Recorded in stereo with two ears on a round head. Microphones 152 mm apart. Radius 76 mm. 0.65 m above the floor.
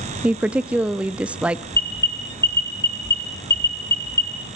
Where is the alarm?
15° left (ahead or behind), 3.5 m.